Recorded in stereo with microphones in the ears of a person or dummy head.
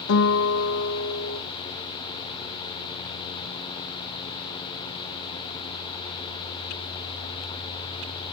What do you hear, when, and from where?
0.1 s a guitar: 65° left (ahead or behind), 2.5 m